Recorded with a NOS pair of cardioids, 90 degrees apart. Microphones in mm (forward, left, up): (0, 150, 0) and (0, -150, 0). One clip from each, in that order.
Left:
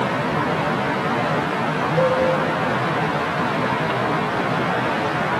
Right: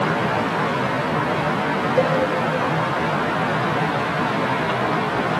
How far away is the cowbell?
About 3 m.